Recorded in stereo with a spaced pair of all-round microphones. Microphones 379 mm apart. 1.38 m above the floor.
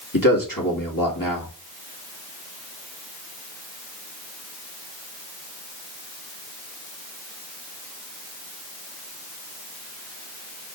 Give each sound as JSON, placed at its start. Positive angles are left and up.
{"t": 0.1, "sound": "a man speaking", "side_deg": 60, "distance_m": 2.5}